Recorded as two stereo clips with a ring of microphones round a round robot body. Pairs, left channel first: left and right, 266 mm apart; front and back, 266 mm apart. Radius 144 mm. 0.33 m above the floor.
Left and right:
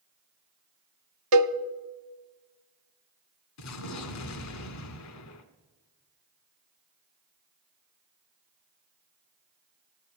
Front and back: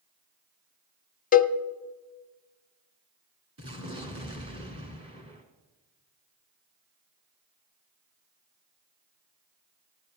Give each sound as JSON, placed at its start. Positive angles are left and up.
{"t": 1.3, "sound": "a cowbell", "azimuth_deg": -60, "distance_m": 0.5}
{"t": 3.6, "sound": "an explosion", "azimuth_deg": 110, "distance_m": 1.2}